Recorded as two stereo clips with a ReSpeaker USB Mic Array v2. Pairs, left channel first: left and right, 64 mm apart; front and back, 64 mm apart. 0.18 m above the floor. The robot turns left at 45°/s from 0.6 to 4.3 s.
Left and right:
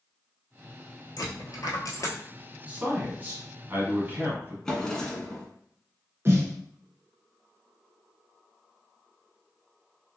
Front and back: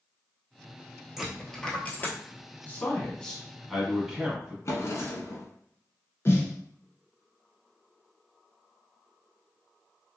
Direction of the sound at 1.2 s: 100° left.